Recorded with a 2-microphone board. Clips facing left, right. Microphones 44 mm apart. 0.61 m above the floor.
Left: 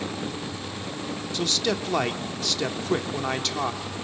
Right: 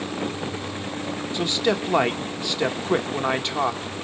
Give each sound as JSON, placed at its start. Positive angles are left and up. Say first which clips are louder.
{"t": 1.3, "sound": "a man speaking", "louder": "right 3 dB", "side_deg": -15, "distance_m": 1.0}